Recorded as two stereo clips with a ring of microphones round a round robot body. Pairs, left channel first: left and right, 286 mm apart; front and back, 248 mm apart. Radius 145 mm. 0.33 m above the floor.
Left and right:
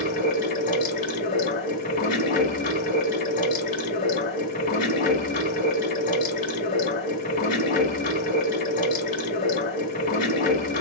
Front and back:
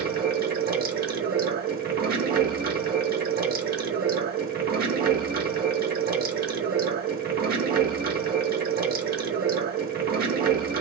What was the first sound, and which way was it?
Running water, 145° left.